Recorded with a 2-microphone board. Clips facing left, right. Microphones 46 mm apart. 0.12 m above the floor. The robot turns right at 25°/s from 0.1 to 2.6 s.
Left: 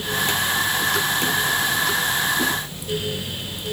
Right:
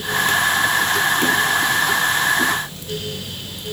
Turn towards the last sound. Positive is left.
No sound to turn to.